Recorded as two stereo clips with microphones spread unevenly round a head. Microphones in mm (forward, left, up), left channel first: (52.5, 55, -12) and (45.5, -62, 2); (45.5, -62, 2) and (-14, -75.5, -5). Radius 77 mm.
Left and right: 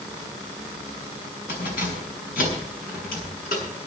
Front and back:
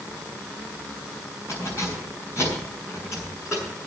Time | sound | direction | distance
1.5 | keys jangling | 115° left | 6 m